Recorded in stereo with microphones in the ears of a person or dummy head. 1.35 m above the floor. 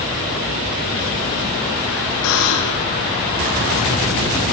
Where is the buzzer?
80° left, 6 m.